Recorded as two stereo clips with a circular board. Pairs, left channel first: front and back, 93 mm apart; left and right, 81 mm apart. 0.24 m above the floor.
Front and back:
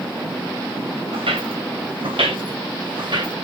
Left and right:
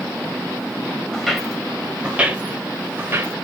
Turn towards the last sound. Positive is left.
turn(degrees=-140)